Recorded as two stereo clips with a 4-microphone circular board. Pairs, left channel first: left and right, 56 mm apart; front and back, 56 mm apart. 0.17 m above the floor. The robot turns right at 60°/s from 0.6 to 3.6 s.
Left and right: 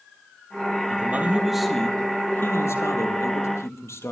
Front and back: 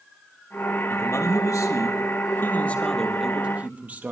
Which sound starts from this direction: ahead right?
A man speaking, at 0.9 s.